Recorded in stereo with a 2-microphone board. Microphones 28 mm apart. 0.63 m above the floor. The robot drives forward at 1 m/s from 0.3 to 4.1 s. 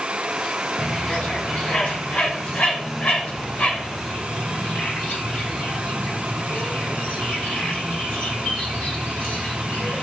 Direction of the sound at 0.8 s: 50° left (ahead or behind).